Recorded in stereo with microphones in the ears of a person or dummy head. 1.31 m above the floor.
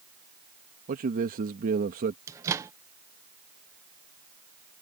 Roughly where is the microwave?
Centre.